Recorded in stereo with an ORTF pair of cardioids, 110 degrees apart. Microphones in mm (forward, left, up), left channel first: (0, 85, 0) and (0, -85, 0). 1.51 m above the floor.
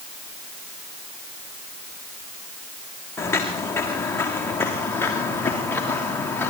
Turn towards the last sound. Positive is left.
turn(degrees=15)